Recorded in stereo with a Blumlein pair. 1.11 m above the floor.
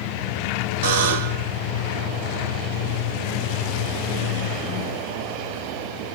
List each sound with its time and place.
0.8 s a buzzer: 50° right, 1.3 m